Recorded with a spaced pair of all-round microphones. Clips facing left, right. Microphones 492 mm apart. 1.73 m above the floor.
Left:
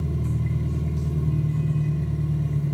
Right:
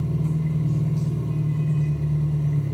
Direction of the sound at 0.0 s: 35° left (ahead or behind).